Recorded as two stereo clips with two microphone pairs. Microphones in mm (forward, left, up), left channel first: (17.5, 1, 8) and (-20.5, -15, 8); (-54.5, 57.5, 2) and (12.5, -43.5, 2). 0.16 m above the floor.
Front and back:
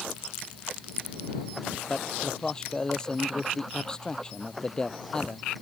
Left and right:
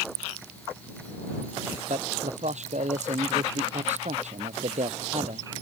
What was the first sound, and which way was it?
A man speaking, 50° right.